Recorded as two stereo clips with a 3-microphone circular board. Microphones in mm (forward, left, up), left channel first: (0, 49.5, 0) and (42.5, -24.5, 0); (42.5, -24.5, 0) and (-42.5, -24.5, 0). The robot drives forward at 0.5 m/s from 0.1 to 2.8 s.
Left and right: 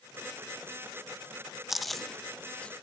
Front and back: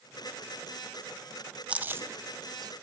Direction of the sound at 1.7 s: 140° right.